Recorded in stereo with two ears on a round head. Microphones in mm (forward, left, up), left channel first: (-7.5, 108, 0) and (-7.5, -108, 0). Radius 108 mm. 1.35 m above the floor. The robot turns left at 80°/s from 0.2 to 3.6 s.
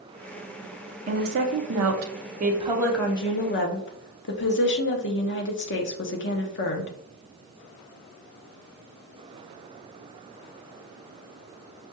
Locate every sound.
1.1 s a woman speaking: 30° right, 0.7 m; by 6.9 s 125° left, 0.7 m